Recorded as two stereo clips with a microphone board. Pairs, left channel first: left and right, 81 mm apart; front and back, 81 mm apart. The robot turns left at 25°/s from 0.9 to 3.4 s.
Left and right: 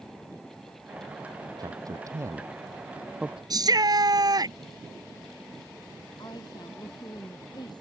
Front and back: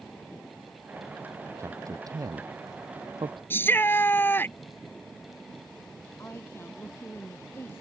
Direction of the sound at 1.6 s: 125° right.